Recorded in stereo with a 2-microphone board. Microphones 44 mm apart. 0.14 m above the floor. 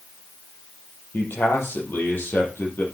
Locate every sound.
1.1 s a man speaking: 55° left (ahead or behind), 5 m